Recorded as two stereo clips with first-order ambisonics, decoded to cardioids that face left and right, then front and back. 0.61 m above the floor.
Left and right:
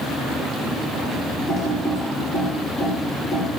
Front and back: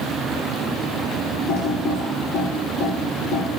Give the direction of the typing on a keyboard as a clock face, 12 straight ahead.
11 o'clock.